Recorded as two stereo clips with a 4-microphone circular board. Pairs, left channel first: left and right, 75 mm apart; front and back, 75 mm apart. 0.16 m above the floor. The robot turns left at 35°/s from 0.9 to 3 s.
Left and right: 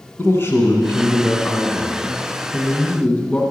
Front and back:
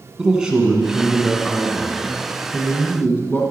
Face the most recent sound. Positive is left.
turn(degrees=30)